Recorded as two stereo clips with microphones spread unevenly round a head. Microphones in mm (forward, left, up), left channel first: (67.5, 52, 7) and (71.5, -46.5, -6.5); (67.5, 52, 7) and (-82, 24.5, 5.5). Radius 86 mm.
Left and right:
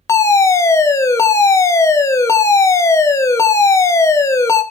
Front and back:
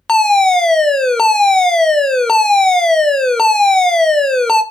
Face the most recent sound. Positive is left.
turn(degrees=90)